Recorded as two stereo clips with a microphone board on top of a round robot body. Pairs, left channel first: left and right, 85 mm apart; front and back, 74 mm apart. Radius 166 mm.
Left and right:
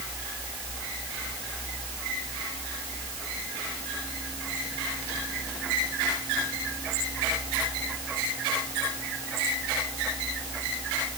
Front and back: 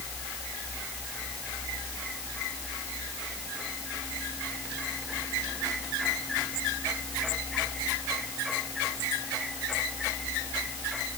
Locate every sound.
Only background noise.